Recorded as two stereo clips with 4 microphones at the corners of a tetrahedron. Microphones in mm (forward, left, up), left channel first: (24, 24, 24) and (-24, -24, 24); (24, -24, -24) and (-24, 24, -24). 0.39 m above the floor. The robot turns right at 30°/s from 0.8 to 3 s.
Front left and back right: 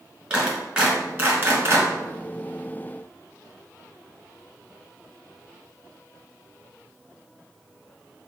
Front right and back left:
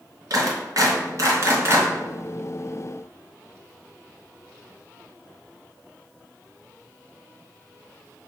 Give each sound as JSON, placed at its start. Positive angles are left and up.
{"t": 0.3, "sound": "a clap", "azimuth_deg": 155, "distance_m": 1.8}